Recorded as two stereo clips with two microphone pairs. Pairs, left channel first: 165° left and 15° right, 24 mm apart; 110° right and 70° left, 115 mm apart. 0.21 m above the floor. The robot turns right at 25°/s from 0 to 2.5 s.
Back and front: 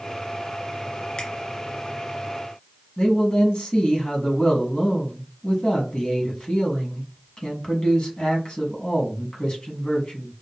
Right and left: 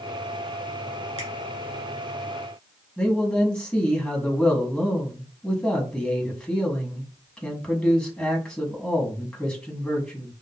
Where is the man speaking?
175° left, 1.5 m.